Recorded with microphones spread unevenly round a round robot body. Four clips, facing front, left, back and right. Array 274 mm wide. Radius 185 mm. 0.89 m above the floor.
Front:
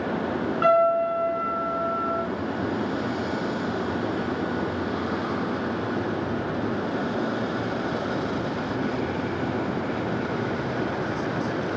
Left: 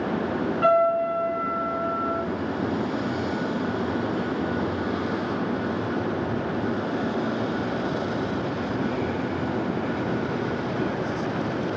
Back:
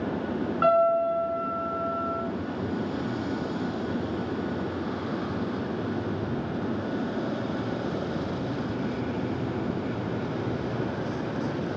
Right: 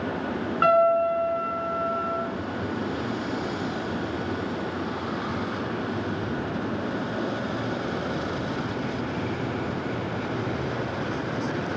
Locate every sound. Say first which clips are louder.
0.6 s a piano: right 1 dB, front 2 dB; 110° right, 1.7 m